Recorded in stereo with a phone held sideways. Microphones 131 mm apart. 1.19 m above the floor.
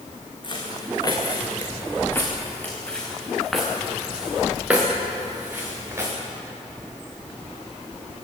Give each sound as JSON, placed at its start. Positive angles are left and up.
{"t": 0.4, "sound": "footsteps", "side_deg": 40, "distance_m": 5.0}